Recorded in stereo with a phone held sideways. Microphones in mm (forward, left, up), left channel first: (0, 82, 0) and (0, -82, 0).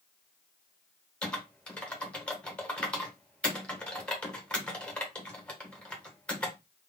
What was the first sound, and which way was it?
Typing on a keyboard, 5° left (ahead or behind).